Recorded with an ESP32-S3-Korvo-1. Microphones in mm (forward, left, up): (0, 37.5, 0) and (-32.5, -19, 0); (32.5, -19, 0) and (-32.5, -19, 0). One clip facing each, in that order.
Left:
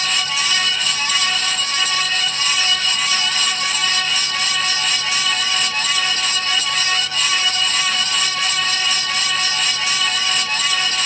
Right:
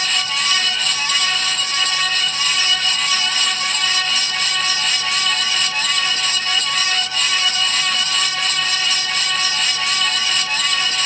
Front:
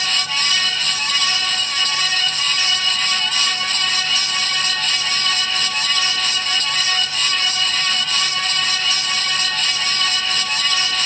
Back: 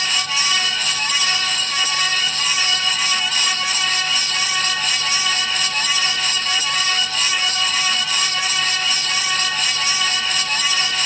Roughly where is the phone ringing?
I don't hear a phone ringing.